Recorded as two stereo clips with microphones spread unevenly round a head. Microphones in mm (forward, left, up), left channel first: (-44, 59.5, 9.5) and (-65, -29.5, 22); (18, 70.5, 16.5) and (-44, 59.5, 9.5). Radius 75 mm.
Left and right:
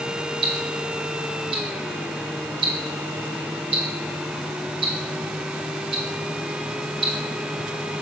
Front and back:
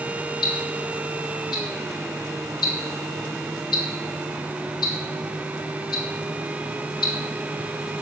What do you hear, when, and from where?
0.4 s ticking: 45° right, 0.7 m